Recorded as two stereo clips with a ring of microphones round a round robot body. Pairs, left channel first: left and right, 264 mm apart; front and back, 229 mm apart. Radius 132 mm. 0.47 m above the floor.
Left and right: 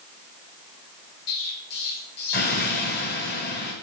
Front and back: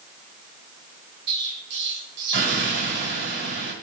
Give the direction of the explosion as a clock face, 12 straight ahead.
7 o'clock.